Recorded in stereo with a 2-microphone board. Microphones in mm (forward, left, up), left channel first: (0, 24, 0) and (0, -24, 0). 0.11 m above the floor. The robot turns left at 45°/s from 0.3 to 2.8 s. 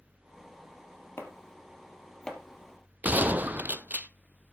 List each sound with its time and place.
1.2 s chopping: 55° left (ahead or behind), 2.5 m; by 2.4 s 10° left (ahead or behind), 2.5 m
3.0 s a gunshot: 35° right (ahead or behind), 0.7 m